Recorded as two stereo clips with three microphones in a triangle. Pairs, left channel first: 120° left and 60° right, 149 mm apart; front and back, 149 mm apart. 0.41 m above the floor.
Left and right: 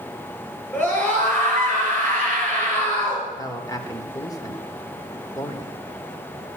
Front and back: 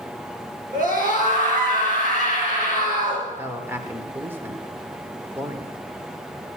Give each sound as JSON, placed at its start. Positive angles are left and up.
{"t": 0.7, "sound": "a scream", "azimuth_deg": -165, "distance_m": 7.0}
{"t": 3.3, "sound": "a man speaking", "azimuth_deg": 125, "distance_m": 1.3}